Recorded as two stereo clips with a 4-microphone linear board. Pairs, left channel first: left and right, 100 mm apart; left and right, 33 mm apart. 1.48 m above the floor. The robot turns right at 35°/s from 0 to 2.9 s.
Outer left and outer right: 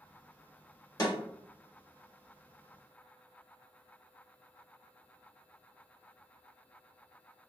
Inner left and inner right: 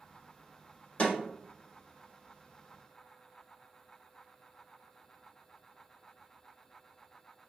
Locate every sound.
1.0 s a snare drum: 40° left (ahead or behind), 1.1 m; by 1.1 s 45° left (ahead or behind), 1.1 m